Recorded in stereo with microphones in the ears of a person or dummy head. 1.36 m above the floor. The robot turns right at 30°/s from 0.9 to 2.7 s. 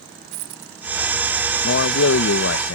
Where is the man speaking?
65° left; by 2.8 s 100° left.